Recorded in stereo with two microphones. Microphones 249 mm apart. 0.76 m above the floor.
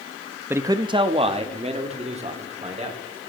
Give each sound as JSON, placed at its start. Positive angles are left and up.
{"t": 0.5, "sound": "a man speaking", "side_deg": -10, "distance_m": 0.5}